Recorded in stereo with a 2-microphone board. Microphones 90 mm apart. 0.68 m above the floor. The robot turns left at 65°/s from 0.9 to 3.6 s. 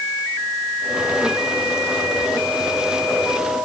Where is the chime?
No chime in this recording.